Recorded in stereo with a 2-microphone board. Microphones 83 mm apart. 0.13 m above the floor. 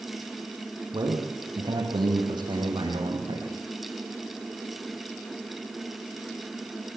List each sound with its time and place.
0.9 s a man speaking: 60° right (ahead or behind), 5.5 m; by 3.5 s 70° right (ahead or behind), 6.5 m